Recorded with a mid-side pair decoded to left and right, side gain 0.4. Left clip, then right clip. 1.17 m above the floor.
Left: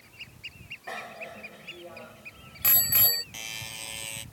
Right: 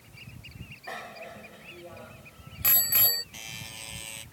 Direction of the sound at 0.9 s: 10° left.